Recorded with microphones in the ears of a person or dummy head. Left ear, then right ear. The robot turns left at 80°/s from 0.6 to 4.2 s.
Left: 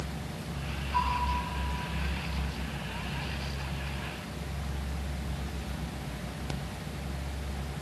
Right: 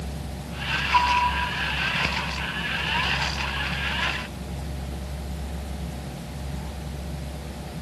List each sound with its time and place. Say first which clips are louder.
0.9 s a bell: right 9 dB; 50° right (ahead or behind), 2 m; by 1.2 s 70° right (ahead or behind), 2 m